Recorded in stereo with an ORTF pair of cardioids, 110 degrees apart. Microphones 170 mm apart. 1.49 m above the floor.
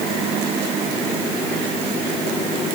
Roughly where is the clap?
I don't hear a clap.